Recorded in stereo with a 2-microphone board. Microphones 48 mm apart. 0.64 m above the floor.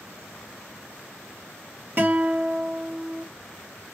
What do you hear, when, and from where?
2.0 s a guitar: 40° right (ahead or behind), 1.5 m